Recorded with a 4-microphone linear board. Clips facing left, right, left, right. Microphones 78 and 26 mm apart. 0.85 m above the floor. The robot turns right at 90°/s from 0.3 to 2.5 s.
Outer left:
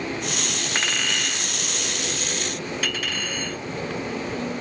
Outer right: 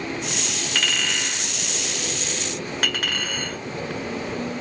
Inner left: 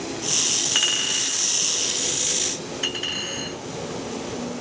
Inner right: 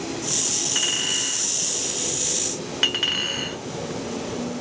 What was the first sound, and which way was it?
A clink, 35° left (ahead or behind).